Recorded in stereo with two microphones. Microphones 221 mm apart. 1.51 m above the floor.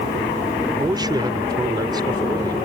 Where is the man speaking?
20° right (ahead or behind).